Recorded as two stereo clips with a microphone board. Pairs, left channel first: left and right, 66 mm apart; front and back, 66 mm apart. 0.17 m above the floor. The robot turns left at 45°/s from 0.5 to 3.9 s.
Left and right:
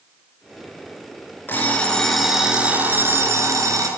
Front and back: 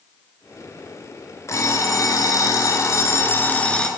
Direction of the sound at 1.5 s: 30° left.